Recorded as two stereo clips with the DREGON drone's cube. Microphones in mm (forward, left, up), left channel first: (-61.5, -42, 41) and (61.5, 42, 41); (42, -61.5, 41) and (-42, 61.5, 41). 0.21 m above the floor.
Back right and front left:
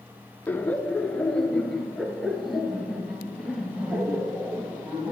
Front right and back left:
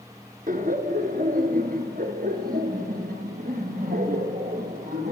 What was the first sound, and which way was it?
Laughter, 135° left.